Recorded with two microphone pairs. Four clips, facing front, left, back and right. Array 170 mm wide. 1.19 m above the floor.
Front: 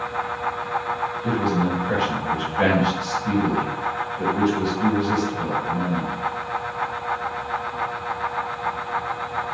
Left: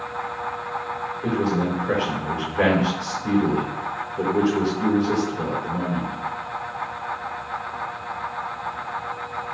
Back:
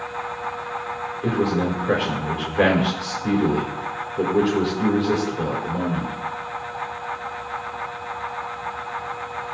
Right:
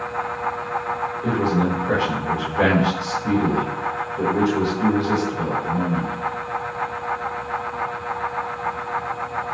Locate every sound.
1.2 s a man speaking: 175° left, 4.5 m